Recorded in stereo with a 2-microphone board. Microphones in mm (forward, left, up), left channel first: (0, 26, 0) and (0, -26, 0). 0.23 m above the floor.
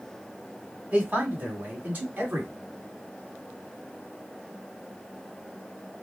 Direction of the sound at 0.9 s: 25° right (ahead or behind).